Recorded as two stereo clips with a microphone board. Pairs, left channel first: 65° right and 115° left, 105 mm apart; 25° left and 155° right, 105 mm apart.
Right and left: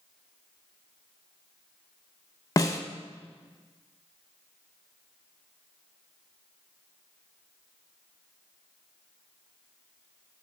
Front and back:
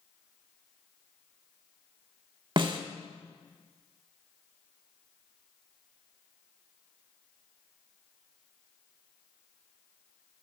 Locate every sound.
2.6 s a snare drum: 120° right, 0.6 m